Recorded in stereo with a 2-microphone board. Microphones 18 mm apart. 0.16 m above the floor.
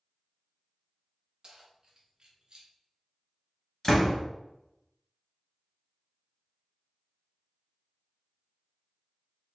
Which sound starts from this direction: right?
Keys jangling, at 1.4 s.